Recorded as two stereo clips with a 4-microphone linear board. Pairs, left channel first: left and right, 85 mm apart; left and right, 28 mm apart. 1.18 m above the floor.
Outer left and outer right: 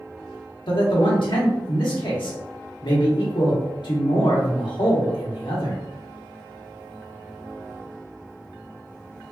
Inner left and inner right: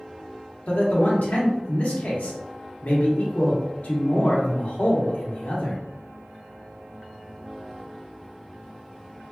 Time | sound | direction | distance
0.7 | a man speaking | 70° left (ahead or behind) | 1.1 m